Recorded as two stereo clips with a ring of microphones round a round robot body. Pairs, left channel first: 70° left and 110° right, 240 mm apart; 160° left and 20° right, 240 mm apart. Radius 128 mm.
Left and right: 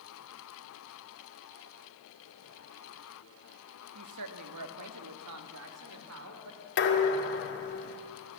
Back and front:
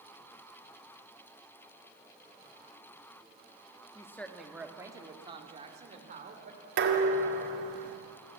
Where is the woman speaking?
125° right, 1.3 m; by 6.6 s 80° right, 3 m.